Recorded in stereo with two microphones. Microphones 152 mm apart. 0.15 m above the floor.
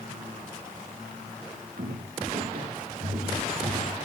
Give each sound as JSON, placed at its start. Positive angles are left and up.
{"t": 1.8, "sound": "footsteps", "side_deg": -80, "distance_m": 4.0}